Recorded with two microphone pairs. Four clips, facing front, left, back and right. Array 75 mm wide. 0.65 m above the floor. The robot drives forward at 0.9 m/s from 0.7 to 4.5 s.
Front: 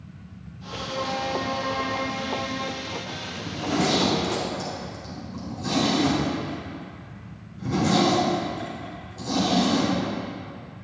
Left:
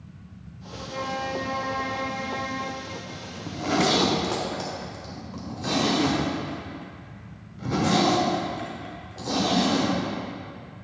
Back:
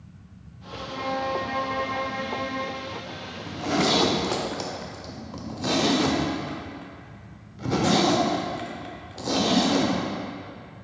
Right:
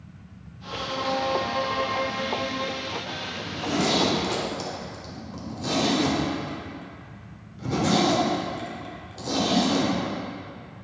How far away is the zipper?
About 0.6 m.